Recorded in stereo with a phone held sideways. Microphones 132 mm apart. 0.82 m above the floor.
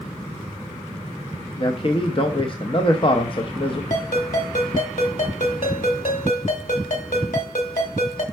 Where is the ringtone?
75° left (ahead or behind), 1.7 m.